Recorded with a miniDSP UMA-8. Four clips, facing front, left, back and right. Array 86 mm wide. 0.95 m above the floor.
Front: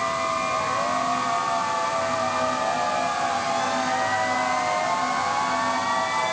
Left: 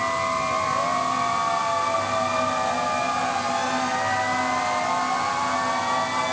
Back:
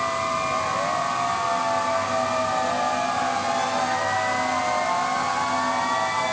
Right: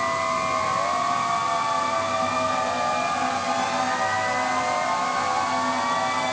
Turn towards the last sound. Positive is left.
No sound to turn to.